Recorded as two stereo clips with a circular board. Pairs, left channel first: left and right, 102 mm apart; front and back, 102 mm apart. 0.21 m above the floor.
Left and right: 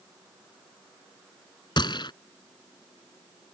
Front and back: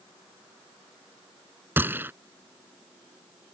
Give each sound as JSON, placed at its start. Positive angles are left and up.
{"t": 1.8, "sound": "a gunshot", "azimuth_deg": 115}